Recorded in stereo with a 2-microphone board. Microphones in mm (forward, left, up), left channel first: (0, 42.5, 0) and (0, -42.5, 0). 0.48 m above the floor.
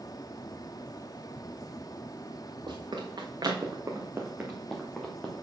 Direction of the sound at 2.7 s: 65° right (ahead or behind).